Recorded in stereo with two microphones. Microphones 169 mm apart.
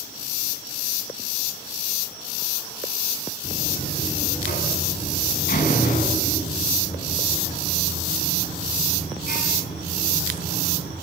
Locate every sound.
3.4 s a buzzer: 60° left (ahead or behind), 9.5 m